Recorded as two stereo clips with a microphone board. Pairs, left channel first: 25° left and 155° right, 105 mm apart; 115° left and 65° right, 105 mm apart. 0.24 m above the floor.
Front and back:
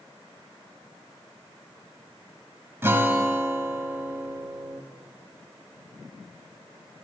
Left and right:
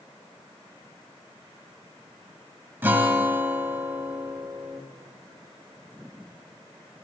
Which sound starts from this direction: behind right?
A guitar, at 2.8 s.